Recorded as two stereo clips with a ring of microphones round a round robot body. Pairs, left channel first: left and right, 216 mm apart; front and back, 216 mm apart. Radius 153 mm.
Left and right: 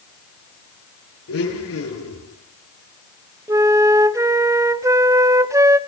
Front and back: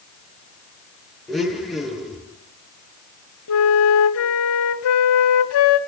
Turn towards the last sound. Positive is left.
turn(degrees=-15)